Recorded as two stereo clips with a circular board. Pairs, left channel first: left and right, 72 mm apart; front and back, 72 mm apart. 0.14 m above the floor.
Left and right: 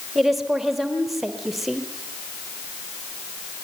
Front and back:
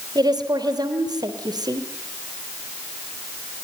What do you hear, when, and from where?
0.1 s a woman speaking: straight behind, 3.5 m